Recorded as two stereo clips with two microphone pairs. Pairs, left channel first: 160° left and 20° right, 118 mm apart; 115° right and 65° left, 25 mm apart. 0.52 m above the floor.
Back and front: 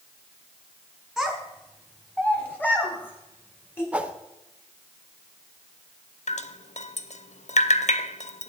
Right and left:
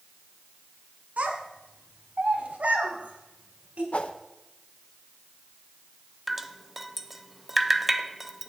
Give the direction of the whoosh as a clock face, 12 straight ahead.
3 o'clock.